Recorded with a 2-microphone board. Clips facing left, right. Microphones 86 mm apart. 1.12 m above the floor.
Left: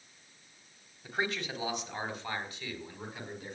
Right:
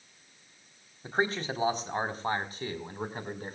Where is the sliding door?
No sliding door in this recording.